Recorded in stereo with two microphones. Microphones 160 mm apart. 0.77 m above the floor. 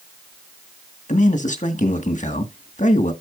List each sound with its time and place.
1.1 s a man speaking: 50° left (ahead or behind), 1.5 m